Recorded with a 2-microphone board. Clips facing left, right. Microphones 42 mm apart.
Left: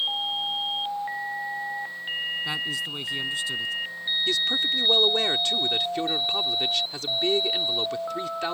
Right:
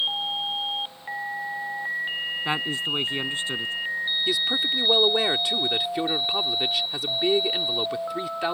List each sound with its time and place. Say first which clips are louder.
2.5 s a man speaking: right 3 dB; 30° right (ahead or behind)
4.3 s a man speaking: left 2 dB; 10° right (ahead or behind)